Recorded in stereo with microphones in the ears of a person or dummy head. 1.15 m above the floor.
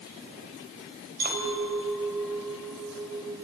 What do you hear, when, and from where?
1.2 s a clink: 55° right (ahead or behind), 3.5 m